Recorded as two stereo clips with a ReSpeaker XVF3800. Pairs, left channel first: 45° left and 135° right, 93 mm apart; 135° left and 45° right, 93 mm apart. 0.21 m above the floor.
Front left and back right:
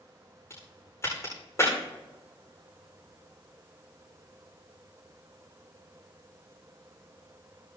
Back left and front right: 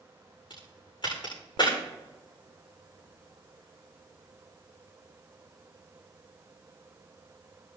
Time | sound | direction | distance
0.5 | a crack | 105° left | 8 m